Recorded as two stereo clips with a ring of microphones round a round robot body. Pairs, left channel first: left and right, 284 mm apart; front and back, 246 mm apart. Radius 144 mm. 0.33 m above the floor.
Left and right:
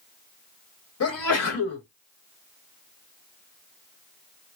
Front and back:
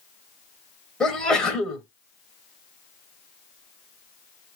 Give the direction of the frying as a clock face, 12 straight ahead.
No frying in this recording.